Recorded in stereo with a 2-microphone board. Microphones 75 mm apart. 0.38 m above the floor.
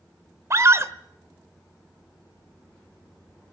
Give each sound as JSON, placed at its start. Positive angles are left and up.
{"t": 0.5, "sound": "a scream", "side_deg": -40, "distance_m": 1.1}